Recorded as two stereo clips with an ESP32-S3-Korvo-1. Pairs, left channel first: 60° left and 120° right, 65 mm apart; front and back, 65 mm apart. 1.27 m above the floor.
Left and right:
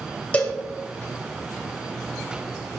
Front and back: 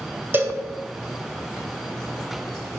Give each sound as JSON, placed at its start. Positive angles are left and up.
{"t": 0.3, "sound": "a cowbell", "azimuth_deg": 125, "distance_m": 1.7}